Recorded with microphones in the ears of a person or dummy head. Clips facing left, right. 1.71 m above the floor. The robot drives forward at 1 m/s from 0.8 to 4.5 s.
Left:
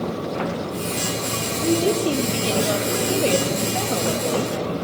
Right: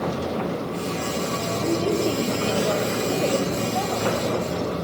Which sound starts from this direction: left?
A woman speaking, at 1.6 s.